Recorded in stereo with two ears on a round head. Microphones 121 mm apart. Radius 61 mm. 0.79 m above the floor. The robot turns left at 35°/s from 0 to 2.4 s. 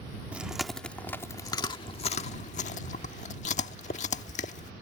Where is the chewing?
10° right (ahead or behind); by 4.7 s 60° left (ahead or behind).